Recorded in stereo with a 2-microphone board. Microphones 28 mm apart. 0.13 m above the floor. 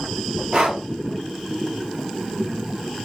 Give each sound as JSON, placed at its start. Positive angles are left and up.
{"t": 0.5, "sound": "breathing", "side_deg": -30, "distance_m": 1.3}